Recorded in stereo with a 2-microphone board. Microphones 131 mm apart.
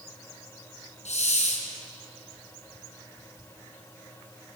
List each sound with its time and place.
1.1 s a hiss: 60° left (ahead or behind), 4 m